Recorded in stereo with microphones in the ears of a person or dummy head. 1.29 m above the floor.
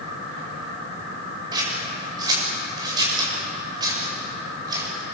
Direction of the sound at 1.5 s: 25° right (ahead or behind).